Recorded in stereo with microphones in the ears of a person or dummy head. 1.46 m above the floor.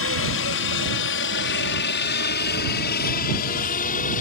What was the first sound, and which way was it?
A helicopter, 70° left (ahead or behind).